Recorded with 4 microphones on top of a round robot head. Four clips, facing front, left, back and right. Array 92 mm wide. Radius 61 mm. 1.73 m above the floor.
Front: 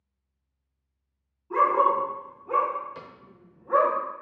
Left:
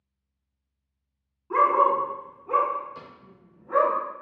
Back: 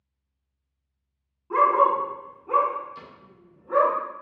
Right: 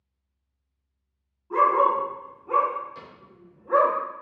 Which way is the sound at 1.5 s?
145° left.